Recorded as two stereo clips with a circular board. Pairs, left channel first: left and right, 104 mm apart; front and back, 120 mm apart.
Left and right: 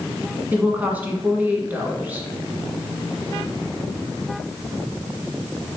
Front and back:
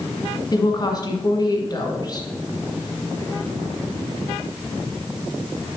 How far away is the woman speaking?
About 1.4 m.